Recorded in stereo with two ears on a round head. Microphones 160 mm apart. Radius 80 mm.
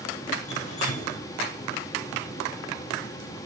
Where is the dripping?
45° left (ahead or behind), 9.5 m.